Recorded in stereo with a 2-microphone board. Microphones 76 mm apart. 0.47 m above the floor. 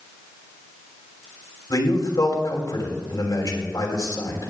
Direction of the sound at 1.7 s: 60° left (ahead or behind).